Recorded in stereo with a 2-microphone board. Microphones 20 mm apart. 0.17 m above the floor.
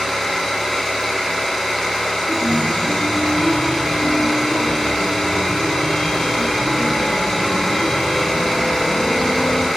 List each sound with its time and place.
0.0 s an engine running: 55° left (ahead or behind), 2 m
2.3 s a chime: 55° left (ahead or behind), 1.2 m